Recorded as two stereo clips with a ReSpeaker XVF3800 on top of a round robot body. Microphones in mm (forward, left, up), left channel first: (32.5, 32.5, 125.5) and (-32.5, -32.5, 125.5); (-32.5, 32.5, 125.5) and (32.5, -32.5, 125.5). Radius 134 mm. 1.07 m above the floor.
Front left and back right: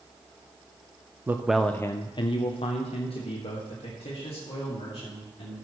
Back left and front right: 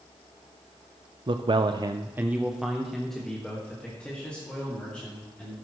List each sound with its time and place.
1.3 s a man speaking: 70° right, 0.7 m; by 5.5 s 60° left, 3.5 m